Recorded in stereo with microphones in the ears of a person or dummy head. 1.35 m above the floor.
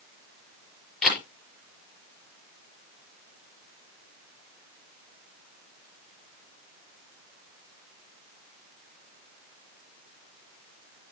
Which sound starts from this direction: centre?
A camera shutter, at 1.0 s.